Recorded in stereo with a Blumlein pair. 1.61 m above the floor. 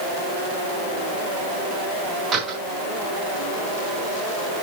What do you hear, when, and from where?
2.3 s a door slam: 30° right, 6.5 m